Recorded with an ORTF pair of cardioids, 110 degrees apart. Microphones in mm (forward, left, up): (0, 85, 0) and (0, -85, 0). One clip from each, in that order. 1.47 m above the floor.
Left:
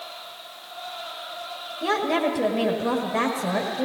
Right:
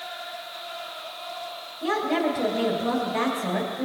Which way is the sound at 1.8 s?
25° left.